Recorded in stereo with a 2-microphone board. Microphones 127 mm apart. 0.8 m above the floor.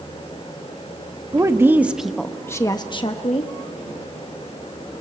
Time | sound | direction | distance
1.3 | a woman speaking | 25° right (ahead or behind) | 1.2 m